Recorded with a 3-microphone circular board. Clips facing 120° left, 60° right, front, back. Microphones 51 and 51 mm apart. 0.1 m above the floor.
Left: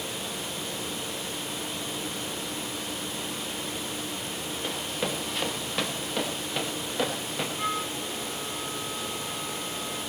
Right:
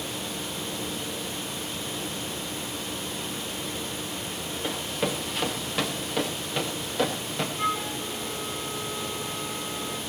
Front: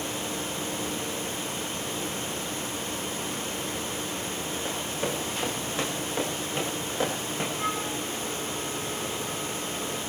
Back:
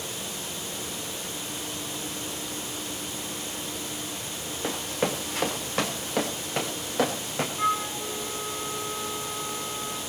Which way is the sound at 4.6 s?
150° right.